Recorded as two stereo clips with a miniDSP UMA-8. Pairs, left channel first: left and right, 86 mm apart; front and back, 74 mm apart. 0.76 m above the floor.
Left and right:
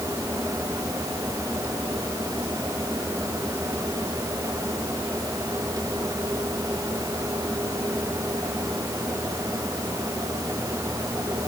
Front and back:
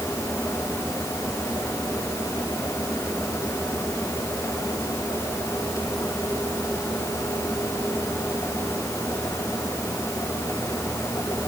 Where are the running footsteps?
I don't hear running footsteps.